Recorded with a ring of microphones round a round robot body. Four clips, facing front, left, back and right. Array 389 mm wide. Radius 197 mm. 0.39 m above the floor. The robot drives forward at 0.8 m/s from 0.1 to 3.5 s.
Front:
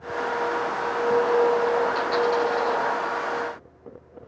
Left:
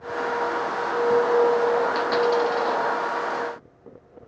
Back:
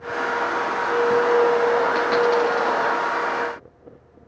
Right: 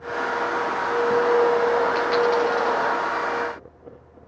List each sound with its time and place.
1.9 s a dropped coin: 165° left, 3 m; by 2.8 s 170° left, 3.5 m